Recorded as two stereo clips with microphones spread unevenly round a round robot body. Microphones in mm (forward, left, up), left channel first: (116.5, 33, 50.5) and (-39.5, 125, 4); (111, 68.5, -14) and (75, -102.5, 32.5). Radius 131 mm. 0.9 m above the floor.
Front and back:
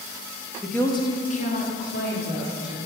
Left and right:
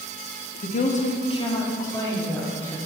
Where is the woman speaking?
70° left, 1.0 m; by 2.8 s straight ahead, 3 m.